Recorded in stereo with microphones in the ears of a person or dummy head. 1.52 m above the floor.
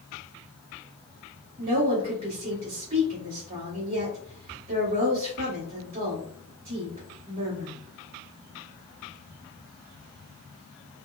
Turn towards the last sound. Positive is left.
turn(degrees=-35)  # may be behind; listen again after turning